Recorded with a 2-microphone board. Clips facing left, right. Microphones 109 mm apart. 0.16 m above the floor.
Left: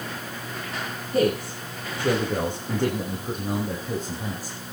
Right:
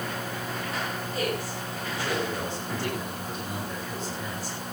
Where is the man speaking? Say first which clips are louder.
Left 10 dB; 55° left (ahead or behind), 7.5 m; by 4.6 s 40° left (ahead or behind), 6 m.